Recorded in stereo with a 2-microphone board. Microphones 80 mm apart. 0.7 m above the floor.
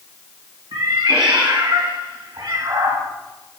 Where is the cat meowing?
80° right, 2 m.